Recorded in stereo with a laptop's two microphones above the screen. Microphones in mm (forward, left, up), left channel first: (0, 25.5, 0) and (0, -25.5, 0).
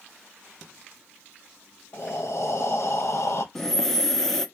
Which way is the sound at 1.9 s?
65° left (ahead or behind).